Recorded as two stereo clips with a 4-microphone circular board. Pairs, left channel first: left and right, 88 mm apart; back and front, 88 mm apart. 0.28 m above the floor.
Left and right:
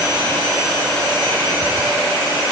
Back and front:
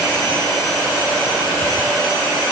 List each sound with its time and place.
Only background noise.